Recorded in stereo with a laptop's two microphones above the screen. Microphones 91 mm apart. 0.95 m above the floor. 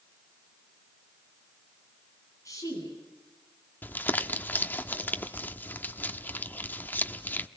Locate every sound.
2.5 s a woman speaking: 35° left (ahead or behind), 9 m
3.8 s crumpling: 20° left (ahead or behind), 1.0 m